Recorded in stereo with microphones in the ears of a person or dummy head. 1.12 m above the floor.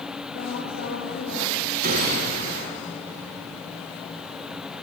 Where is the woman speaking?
75° left (ahead or behind), 6 m.